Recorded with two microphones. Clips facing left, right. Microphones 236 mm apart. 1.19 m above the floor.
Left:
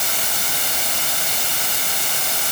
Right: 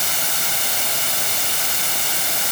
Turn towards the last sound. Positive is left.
No sound to turn to.